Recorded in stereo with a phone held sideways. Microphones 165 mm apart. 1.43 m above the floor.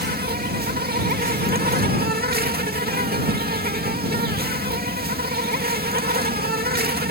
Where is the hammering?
No hammering in this recording.